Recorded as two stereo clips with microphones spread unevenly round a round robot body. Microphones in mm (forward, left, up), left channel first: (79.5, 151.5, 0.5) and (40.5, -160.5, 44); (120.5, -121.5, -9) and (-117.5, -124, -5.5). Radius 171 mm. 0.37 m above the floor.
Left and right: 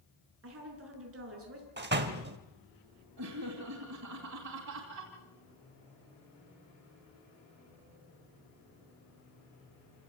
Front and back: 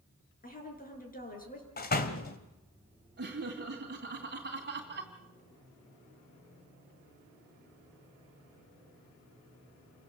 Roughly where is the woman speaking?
Ahead right.